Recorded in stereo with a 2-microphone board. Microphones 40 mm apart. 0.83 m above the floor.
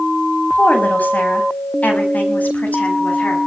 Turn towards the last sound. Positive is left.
turn(degrees=45)  # may be behind; listen again after turning